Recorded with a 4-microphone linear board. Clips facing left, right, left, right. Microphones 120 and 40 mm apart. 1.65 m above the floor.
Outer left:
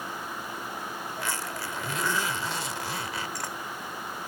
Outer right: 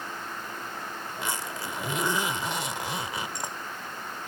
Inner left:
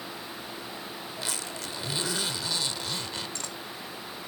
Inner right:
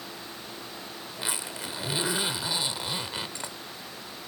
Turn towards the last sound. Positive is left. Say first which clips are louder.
# outer right 1 dB, inner right 2 dB
turn(degrees=-20)  # may be behind; listen again after turning